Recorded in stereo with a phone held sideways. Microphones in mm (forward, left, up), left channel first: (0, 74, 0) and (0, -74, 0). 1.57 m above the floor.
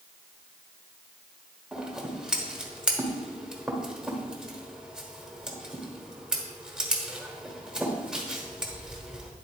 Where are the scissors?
5° right (ahead or behind), 1.3 m.